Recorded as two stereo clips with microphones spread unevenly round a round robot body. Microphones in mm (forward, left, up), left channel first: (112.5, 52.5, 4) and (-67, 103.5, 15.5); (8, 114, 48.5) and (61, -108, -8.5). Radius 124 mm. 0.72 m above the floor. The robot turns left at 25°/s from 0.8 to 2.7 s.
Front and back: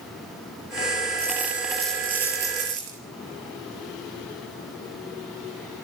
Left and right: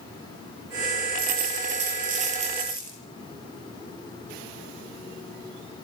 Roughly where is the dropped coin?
Right.